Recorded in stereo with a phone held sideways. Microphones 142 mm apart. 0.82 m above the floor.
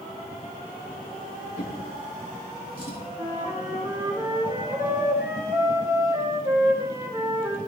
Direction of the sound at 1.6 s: 75° left (ahead or behind).